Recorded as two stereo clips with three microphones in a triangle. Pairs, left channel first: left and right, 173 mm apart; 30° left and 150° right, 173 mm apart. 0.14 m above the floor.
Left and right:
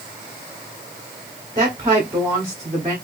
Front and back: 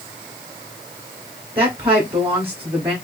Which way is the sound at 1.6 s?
140° right.